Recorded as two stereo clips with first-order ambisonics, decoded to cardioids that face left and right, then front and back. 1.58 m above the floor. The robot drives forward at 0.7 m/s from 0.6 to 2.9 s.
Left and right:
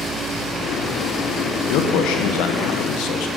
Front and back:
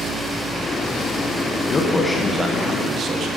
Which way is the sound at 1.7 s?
65° left.